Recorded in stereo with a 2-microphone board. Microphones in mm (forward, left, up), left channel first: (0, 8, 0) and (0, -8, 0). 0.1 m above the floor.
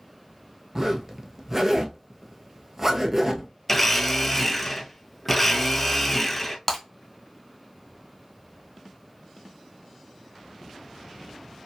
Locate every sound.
0.8 s a zipper: 25° right (ahead or behind), 0.6 m
3.7 s a blender: 5° left (ahead or behind), 0.6 m
6.7 s breaking glass: 5° left (ahead or behind), 1.6 m